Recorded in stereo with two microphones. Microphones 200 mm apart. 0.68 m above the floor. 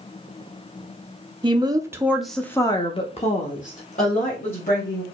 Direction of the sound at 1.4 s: 25° right (ahead or behind).